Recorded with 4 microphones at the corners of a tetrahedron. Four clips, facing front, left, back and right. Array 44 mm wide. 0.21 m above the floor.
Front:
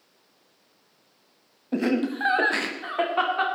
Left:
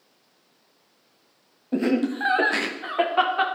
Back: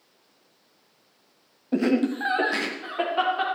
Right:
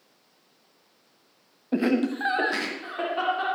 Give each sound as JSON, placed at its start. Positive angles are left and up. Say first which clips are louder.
{"t": 1.7, "sound": "laughter", "louder": "left 1 dB, back 2 dB", "azimuth_deg": -85, "distance_m": 1.1}